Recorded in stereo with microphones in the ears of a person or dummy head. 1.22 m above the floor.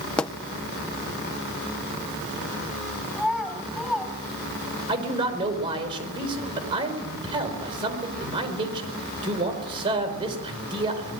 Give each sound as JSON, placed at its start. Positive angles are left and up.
{"t": 0.2, "sound": "a pop", "side_deg": 5, "distance_m": 0.5}
{"t": 3.1, "sound": "a child speaking", "side_deg": -5, "distance_m": 4.5}
{"t": 4.9, "sound": "a man speaking", "side_deg": -25, "distance_m": 4.5}